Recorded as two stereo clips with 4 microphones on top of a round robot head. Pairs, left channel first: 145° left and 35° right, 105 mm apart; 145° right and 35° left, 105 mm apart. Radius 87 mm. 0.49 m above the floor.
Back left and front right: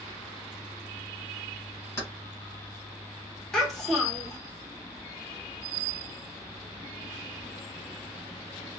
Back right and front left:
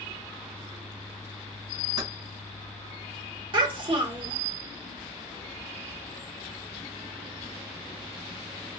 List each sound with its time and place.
2.0 s keys jangling: 80° left, 1.9 m
3.5 s a child speaking: 60° left, 1.5 m